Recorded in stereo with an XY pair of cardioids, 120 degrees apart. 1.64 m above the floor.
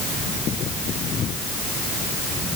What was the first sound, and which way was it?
Only background noise.